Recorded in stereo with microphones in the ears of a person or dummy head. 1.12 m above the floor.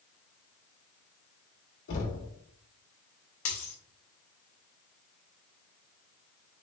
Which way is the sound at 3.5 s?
40° left (ahead or behind).